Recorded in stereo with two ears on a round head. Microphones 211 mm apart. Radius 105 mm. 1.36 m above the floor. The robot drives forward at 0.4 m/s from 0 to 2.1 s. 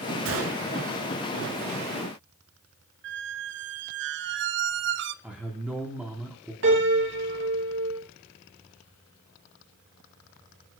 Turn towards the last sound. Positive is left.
turn(degrees=-55)  # may be behind; listen again after turning